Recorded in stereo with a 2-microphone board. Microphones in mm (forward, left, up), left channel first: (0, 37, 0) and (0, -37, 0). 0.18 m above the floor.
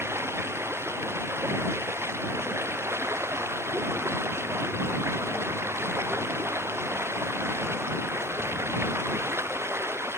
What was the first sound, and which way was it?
Running water, 35° right (ahead or behind).